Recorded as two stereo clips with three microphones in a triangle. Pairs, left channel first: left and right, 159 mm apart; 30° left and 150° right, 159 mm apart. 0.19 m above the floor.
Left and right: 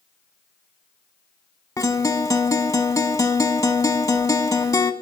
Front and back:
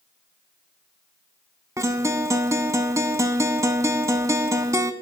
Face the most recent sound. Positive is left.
turn(degrees=150)